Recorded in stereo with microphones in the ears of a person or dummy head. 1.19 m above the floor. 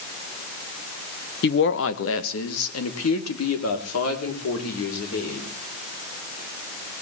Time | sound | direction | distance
1.4 | a woman speaking | 50° left (ahead or behind) | 1.0 m